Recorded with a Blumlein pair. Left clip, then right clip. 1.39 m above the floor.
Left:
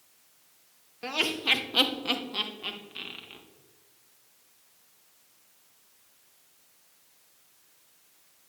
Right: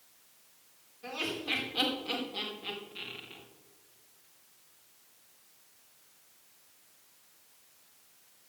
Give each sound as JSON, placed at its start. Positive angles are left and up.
{"t": 1.0, "sound": "laughter", "azimuth_deg": 55, "distance_m": 2.0}